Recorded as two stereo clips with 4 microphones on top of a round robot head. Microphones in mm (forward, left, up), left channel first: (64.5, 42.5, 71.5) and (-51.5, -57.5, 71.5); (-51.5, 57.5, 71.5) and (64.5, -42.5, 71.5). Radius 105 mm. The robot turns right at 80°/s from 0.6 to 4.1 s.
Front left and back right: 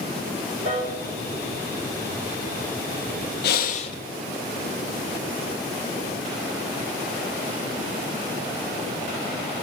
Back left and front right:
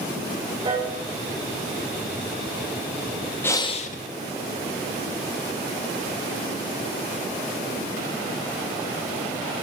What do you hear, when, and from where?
0.7 s a piano: 95° right, 2.5 m; by 0.9 s 70° right, 2.5 m
3.4 s breathing: 60° left, 0.6 m; by 4.0 s 105° left, 0.6 m